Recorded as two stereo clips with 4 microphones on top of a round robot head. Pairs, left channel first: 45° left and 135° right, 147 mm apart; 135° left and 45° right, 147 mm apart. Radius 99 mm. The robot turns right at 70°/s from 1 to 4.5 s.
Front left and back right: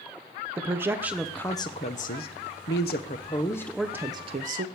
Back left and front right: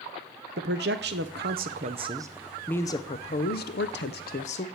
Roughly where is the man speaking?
Ahead right.